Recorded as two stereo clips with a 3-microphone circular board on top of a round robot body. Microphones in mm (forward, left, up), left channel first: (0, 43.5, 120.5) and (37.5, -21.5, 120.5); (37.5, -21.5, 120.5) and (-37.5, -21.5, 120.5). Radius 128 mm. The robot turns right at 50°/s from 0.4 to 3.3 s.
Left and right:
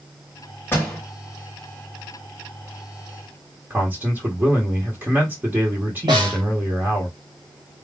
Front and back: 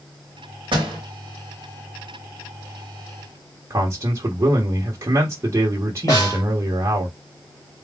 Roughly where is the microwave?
No microwave in this recording.